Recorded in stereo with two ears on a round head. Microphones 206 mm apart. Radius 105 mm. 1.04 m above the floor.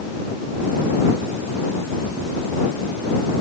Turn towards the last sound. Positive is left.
No sound to turn to.